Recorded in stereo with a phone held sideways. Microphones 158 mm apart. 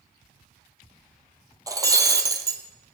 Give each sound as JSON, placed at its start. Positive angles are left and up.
{"t": 1.7, "sound": "breaking glass", "side_deg": -20, "distance_m": 1.3}